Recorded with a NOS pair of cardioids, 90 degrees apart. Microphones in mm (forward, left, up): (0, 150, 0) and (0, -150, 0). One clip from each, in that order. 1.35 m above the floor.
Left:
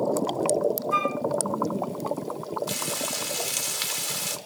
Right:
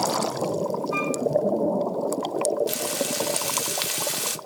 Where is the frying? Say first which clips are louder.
Right 3 dB; 25° right, 0.8 m.